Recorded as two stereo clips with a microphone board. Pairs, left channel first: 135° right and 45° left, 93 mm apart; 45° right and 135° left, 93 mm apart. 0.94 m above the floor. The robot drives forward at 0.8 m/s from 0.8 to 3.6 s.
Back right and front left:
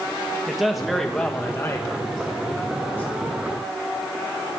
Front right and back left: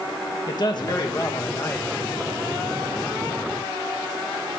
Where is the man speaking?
45° right, 1.3 m; by 3.3 s 155° right, 1.7 m.